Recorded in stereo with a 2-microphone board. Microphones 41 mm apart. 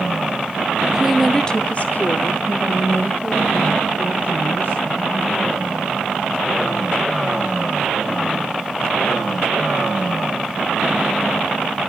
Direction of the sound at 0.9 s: 20° right (ahead or behind).